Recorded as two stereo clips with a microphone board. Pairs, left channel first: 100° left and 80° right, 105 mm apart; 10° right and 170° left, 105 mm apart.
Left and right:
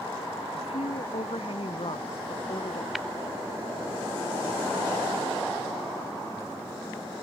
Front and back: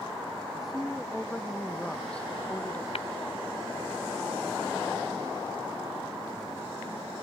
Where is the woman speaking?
80° left; by 2.9 s 65° left.